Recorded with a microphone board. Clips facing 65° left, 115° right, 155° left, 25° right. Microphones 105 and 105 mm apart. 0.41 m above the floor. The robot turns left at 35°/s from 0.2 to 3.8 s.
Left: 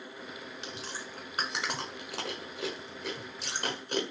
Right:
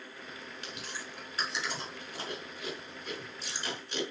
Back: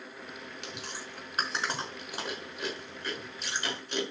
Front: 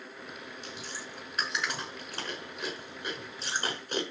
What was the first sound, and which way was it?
Chewing, 135° left.